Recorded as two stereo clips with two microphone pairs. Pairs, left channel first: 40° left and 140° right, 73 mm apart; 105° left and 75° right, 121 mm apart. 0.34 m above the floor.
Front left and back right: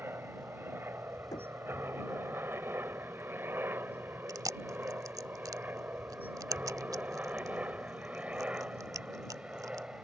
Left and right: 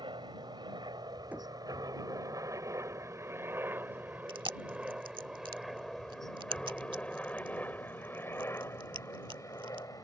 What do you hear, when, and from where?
0.0 s a helicopter: 95° right; by 10.1 s 150° left
1.3 s knocking: straight ahead
4.3 s chewing: 120° right